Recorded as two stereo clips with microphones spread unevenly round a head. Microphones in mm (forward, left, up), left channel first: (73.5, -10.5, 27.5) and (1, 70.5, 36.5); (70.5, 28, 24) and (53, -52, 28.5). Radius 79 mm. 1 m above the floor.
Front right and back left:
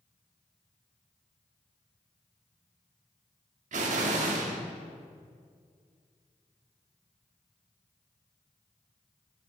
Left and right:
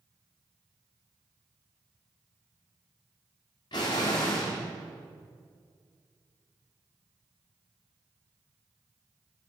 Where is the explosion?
135° left, 1.5 m.